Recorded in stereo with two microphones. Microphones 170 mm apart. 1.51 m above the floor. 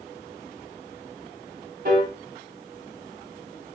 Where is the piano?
65° right (ahead or behind), 0.8 m.